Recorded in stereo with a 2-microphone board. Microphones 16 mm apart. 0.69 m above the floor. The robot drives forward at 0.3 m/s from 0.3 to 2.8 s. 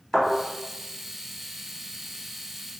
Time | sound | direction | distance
0.1 | a thud | 30° left (ahead or behind) | 1.4 m